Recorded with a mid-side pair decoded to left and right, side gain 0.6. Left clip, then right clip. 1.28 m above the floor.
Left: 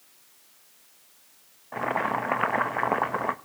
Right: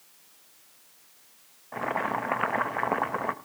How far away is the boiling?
About 1.1 m.